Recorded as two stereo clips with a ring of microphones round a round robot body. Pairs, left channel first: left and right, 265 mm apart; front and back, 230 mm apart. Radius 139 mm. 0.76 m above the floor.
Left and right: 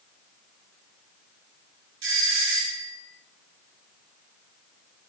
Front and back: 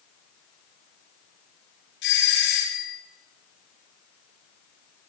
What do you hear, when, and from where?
2.0 s a doorbell: 50° right, 6.5 m